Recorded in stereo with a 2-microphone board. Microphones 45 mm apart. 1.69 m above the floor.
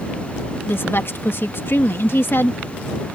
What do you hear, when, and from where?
0.7 s a woman speaking: 55° left (ahead or behind)